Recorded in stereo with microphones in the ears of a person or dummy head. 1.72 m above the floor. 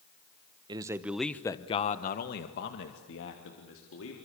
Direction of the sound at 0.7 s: 25° right (ahead or behind).